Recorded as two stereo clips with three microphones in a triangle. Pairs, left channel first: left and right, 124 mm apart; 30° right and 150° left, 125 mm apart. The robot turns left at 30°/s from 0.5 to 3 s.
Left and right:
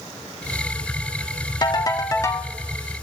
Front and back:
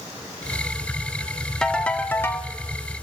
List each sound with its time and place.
1.6 s a ringtone: 55° left, 0.5 m; by 2.5 s 25° left, 0.5 m